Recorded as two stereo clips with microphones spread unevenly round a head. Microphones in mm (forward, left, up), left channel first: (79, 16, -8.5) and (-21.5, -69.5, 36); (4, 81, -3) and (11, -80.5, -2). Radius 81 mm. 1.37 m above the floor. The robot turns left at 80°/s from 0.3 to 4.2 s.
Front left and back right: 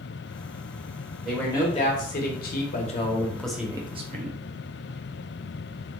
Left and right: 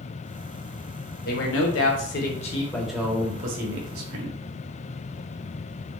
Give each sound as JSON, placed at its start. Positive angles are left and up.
{"t": 1.2, "sound": "a man speaking", "azimuth_deg": 135, "distance_m": 0.8}